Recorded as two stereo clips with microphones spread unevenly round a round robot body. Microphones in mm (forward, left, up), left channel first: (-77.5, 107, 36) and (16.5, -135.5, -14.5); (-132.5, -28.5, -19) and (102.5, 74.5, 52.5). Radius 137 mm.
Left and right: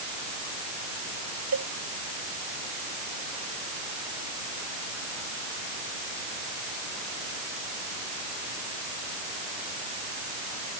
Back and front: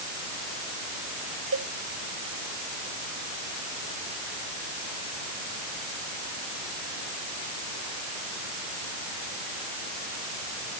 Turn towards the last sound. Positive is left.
turn(degrees=-25)